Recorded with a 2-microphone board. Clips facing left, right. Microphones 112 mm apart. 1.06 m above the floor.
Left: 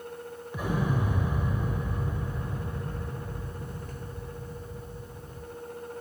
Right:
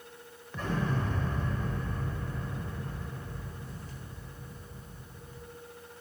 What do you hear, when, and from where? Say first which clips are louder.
0.5 s an explosion: left 3 dB; 10° left (ahead or behind), 0.8 m